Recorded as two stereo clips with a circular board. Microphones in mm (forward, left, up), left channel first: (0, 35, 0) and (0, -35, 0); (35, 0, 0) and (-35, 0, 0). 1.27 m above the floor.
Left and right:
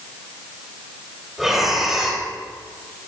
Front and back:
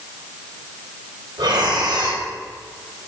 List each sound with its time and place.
1.4 s breathing: 175° right, 3.5 m